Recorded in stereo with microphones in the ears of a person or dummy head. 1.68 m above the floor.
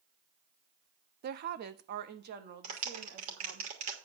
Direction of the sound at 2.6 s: 40° right (ahead or behind).